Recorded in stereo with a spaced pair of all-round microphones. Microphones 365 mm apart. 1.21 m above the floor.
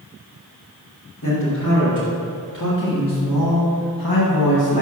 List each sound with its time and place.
1.2 s a man speaking: 50° left (ahead or behind), 3 m; by 4.8 s 90° left, 1.0 m